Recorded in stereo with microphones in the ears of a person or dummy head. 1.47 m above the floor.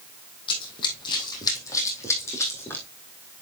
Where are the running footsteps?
30° left (ahead or behind), 3 m; by 2.8 s 10° left (ahead or behind), 4 m.